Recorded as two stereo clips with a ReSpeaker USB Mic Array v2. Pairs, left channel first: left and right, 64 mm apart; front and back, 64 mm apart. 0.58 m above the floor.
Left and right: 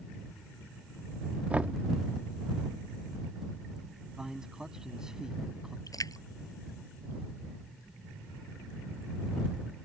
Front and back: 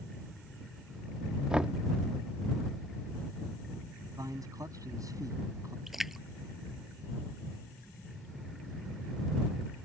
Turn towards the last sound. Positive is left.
turn(degrees=95)